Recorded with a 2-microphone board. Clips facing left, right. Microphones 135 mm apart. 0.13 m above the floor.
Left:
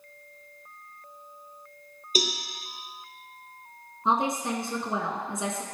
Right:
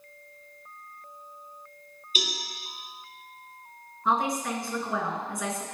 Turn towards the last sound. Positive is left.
turn(degrees=25)  # may be behind; listen again after turning